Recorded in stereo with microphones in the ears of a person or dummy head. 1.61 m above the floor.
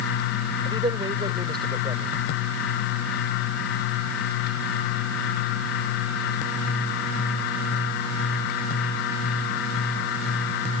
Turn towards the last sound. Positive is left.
turn(degrees=-25)  # may be behind; listen again after turning